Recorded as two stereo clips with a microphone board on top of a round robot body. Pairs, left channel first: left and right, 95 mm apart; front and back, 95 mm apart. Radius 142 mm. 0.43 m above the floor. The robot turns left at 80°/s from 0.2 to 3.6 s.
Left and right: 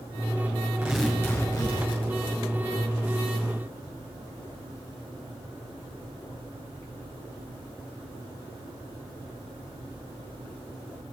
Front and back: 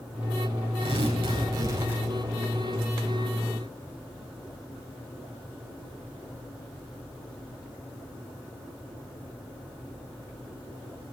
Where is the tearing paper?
165° right, 9.5 m; by 2.1 s 85° left, 9.5 m.